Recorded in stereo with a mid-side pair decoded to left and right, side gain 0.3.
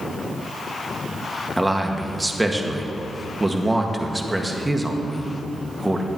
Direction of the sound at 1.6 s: 15° right.